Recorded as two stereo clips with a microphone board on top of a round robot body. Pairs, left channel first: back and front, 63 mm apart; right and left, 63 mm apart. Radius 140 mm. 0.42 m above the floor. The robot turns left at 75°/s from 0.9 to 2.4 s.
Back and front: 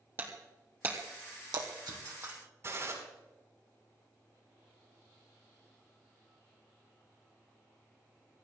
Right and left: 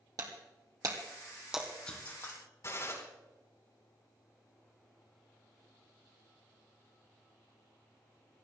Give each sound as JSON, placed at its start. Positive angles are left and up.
{"t": 0.2, "sound": "breaking glass", "azimuth_deg": 55, "distance_m": 2.5}
{"t": 2.6, "sound": "a gunshot", "azimuth_deg": -45, "distance_m": 4.5}